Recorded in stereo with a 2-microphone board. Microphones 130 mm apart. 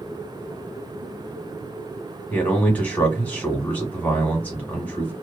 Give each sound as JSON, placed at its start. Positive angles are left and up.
{"t": 2.3, "sound": "a man speaking", "side_deg": 10, "distance_m": 1.3}